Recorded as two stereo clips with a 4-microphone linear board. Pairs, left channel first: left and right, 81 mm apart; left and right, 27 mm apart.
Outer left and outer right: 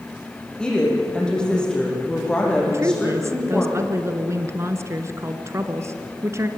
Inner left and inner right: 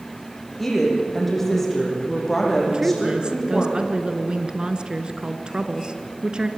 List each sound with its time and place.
0.6 s a woman speaking: 10° left (ahead or behind), 7 m
2.7 s a woman speaking: 35° right (ahead or behind), 1.6 m